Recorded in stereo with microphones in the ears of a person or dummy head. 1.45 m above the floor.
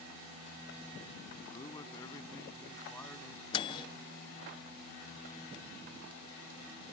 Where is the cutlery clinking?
I don't hear cutlery clinking.